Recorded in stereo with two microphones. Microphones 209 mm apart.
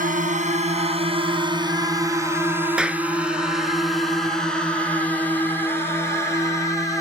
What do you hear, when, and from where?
0.0 s a drone: 40° right (ahead or behind); by 7.0 s 15° left (ahead or behind)
2.8 s a clap: 5° right (ahead or behind)